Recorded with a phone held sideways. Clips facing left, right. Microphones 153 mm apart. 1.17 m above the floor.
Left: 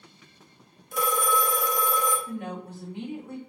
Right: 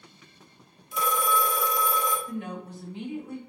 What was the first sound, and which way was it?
A phone ringing, 50° left (ahead or behind).